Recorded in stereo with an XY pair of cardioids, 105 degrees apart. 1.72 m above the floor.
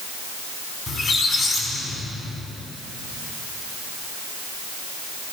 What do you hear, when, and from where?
0.9 s a squeak: 45° left, 5 m